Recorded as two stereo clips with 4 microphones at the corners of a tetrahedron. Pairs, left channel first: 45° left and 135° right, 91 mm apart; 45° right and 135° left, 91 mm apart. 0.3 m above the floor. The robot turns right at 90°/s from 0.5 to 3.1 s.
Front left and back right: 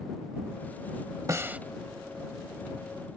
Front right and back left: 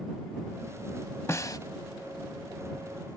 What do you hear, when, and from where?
1.3 s a snare drum: 90° right; by 1.6 s 65° right